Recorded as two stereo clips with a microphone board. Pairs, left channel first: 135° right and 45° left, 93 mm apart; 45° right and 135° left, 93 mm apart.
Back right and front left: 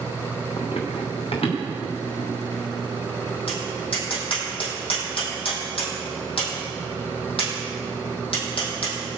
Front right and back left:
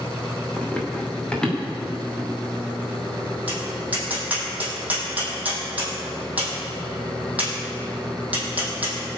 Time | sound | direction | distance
0.6 | running footsteps | 120° right | 3.5 m
3.5 | tapping | 150° right | 4.5 m